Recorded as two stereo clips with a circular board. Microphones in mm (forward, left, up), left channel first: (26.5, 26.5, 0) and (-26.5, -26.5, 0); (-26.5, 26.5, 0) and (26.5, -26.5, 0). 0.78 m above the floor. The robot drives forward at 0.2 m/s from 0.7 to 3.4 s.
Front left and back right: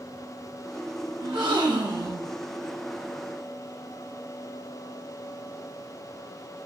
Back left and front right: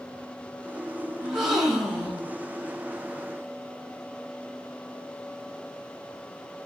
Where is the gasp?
130° right, 0.9 m; by 2.3 s 135° right, 1.1 m.